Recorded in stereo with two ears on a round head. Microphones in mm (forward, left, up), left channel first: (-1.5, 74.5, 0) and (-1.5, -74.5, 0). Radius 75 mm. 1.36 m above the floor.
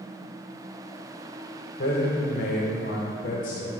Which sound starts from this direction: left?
A man speaking, at 1.8 s.